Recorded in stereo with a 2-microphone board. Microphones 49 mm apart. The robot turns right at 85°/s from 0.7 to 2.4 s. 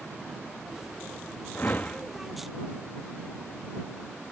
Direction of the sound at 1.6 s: 80° left.